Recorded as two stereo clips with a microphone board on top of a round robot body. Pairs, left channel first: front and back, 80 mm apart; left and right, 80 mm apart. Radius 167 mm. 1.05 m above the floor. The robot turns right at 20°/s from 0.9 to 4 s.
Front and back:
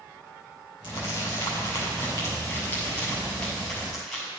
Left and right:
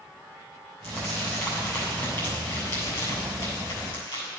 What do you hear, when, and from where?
0.8 s crumpling: 30° left, 4 m; by 4.3 s 90° left, 4 m